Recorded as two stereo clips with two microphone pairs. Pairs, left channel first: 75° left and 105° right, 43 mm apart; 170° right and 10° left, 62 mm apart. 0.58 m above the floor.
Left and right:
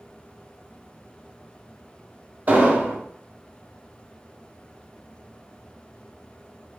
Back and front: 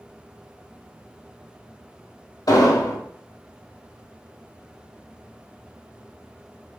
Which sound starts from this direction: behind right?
An explosion, at 2.5 s.